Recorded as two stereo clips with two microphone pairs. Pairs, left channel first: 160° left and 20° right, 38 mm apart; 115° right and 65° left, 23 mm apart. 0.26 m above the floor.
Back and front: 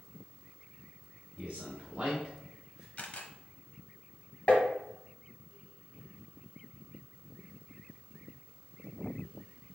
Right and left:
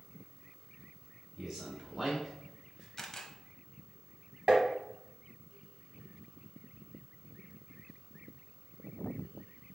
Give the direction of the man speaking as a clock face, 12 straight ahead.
12 o'clock.